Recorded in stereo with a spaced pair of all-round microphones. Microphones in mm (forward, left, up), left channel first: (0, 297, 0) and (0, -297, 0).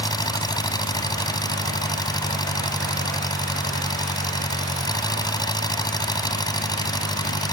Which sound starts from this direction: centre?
An engine running, at 0.0 s.